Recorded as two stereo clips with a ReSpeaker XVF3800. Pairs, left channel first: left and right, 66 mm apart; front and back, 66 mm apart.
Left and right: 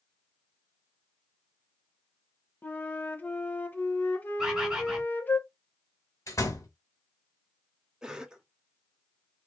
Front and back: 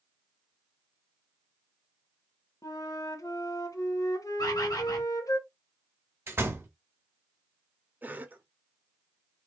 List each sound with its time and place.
2.6 s a flute: 25° left, 0.8 m
4.4 s a bird: 10° right, 1.4 m
6.3 s a door slam: 125° left, 1.8 m
8.0 s a cough: 155° right, 0.9 m